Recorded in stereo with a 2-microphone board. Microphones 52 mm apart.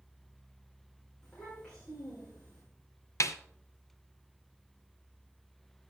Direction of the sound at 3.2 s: 75° left (ahead or behind).